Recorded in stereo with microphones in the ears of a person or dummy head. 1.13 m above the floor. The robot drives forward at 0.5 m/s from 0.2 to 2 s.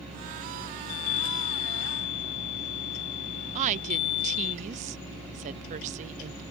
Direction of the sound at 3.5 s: 40° right (ahead or behind).